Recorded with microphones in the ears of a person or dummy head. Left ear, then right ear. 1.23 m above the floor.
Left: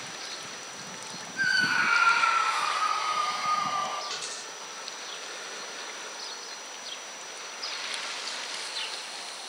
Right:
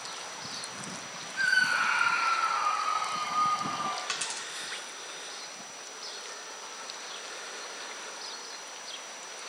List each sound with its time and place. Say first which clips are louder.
1.4 s a scream: left 1 dB; 20° right (ahead or behind), 1.1 m; by 4.0 s 10° left (ahead or behind), 4 m
4.1 s a dropped coin: right 1 dB; 55° right (ahead or behind), 1.2 m